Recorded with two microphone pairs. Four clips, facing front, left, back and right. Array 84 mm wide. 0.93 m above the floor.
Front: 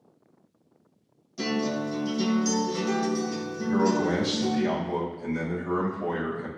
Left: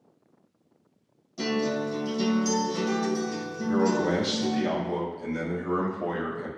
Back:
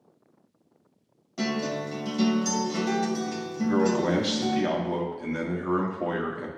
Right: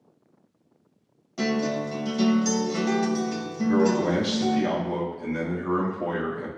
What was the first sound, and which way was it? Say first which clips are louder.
A guitar: right 2 dB, front 1 dB; 125° right.